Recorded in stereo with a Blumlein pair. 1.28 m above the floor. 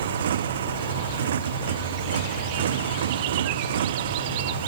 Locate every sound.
0.0 s a motorcycle: 60° right